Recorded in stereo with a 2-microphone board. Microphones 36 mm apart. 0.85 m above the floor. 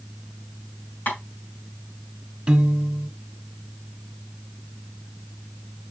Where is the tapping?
60° left (ahead or behind), 4.5 m.